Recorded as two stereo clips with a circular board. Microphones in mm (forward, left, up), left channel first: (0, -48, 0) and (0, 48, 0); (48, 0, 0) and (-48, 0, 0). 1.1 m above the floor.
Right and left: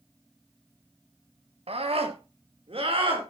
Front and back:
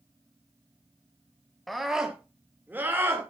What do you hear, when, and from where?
1.7 s a scream: 90° left, 2 m; by 3.3 s 115° left, 4 m